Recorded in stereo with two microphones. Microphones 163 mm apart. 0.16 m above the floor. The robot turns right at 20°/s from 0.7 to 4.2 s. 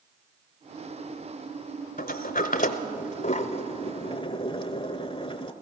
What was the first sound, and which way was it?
A sliding door, 60° left (ahead or behind).